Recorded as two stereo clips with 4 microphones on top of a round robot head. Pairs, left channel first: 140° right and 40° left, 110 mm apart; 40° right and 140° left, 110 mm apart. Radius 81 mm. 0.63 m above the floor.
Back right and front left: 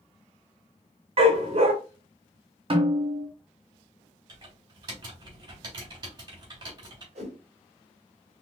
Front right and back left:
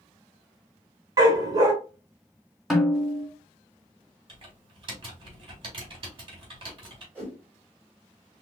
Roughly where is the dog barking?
Left.